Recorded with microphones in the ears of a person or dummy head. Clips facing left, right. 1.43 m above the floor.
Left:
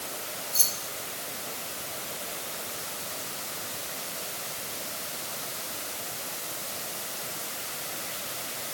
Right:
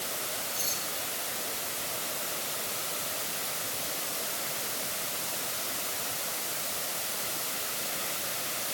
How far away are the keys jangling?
About 6 m.